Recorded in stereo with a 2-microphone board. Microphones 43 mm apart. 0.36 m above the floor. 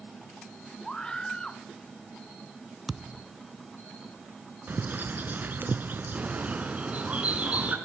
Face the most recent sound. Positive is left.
turn(degrees=-35)  # may be behind; listen again after turning